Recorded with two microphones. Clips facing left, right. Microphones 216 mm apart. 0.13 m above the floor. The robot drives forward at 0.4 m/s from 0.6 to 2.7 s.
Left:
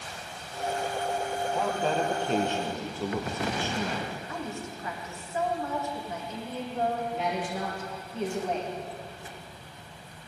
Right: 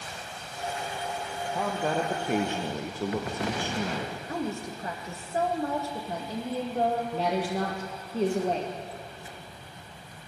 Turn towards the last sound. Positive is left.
turn(degrees=-35)  # may be behind; listen again after turning